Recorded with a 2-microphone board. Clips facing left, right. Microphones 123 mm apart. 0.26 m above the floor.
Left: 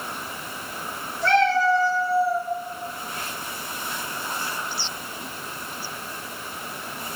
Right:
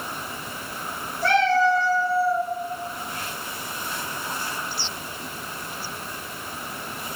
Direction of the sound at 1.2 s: 10° right (ahead or behind).